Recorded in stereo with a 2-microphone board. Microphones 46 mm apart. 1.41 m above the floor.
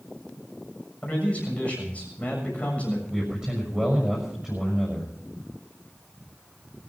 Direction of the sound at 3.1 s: 10° right (ahead or behind).